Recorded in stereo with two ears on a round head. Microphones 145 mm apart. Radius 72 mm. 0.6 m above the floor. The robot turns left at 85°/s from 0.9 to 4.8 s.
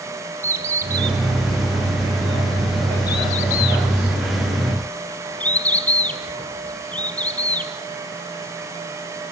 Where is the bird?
20° right (ahead or behind), 1.7 m; by 7.7 s 10° left (ahead or behind), 1.7 m.